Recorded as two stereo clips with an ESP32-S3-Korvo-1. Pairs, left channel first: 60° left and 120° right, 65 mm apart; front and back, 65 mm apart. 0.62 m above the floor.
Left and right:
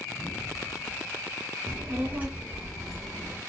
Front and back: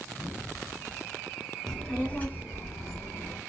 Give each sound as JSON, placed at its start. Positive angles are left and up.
{"t": 1.7, "sound": "a child speaking", "azimuth_deg": -80, "distance_m": 0.9}